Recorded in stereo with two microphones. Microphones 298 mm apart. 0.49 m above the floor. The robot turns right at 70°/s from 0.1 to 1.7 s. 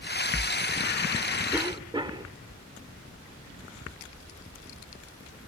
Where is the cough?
5° right (ahead or behind), 1.2 m; by 2.3 s 15° right (ahead or behind), 1.2 m.